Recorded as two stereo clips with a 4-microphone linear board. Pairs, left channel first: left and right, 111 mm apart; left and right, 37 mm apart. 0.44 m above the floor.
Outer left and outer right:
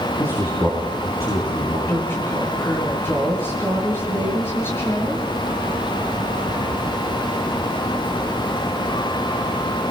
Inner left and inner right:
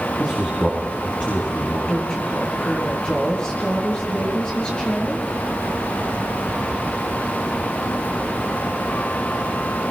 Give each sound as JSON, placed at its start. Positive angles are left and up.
{"t": 0.2, "sound": "a man speaking", "side_deg": 30, "distance_m": 6.5}
{"t": 1.9, "sound": "a woman speaking", "side_deg": 20, "distance_m": 8.0}